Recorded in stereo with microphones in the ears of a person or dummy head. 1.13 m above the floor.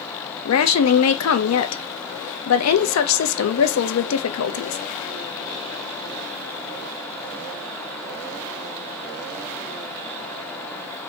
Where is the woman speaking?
70° left (ahead or behind), 0.5 m.